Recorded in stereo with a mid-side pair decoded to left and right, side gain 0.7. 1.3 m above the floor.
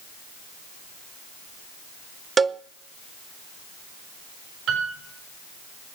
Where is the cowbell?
25° right, 0.6 m.